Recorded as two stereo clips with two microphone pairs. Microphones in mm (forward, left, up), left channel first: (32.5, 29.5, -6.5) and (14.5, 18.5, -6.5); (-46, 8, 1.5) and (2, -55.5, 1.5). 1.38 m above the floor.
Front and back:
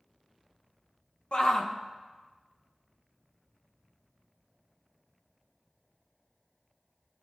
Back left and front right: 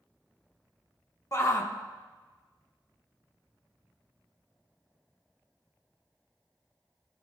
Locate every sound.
1.3 s a shout: 75° left, 1.5 m